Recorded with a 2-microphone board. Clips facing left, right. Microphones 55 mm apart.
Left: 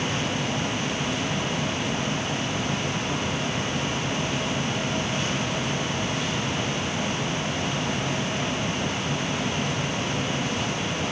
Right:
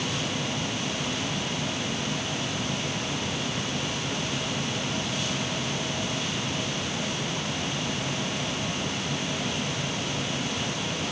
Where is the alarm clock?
I don't hear an alarm clock.